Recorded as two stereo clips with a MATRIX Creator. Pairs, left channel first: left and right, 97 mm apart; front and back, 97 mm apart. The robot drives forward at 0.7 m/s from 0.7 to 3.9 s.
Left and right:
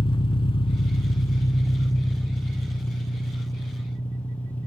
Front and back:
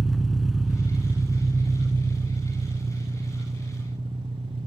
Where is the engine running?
90° left, 0.7 m; by 4.7 s 165° left, 2.5 m.